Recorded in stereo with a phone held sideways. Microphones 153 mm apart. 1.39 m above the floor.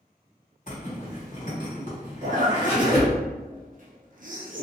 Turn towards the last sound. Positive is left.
turn(degrees=-60)  # may be behind; listen again after turning